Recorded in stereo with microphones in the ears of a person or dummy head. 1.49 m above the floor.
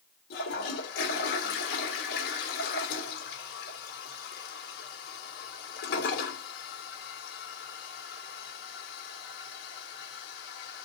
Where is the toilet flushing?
60° left (ahead or behind), 1.9 m.